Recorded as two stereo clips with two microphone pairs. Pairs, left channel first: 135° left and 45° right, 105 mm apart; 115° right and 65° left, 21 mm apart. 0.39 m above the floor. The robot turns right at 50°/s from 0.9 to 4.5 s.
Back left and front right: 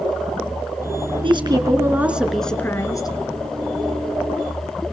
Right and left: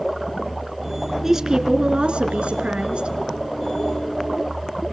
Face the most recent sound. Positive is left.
turn(degrees=155)